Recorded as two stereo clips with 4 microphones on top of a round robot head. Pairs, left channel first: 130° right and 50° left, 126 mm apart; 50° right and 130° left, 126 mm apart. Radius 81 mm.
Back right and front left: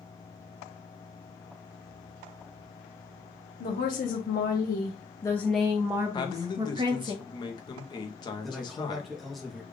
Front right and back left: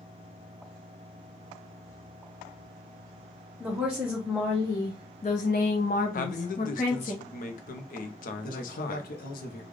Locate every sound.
3.6 s a woman speaking: 150° right, 0.9 m; by 7.1 s 5° right, 1.1 m
6.1 s a man speaking: 70° right, 0.7 m
8.4 s a man speaking: 40° right, 0.8 m